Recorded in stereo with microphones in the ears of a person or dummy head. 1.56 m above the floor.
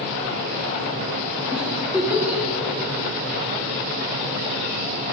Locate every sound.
1.5 s a giggle: 10° right (ahead or behind), 0.9 m